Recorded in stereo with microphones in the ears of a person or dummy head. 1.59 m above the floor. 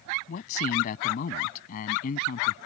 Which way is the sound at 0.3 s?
45° left (ahead or behind).